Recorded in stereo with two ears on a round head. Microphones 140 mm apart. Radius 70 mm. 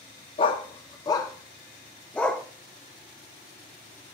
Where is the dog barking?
35° left (ahead or behind), 1.2 m; by 2.5 s 5° left (ahead or behind), 1.7 m.